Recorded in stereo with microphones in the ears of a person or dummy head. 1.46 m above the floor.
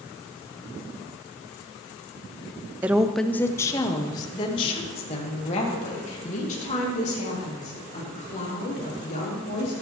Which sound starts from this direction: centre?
A woman speaking, at 2.8 s.